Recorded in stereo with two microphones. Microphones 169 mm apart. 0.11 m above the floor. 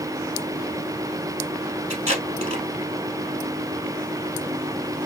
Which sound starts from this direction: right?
Tape being pulled, at 1.9 s.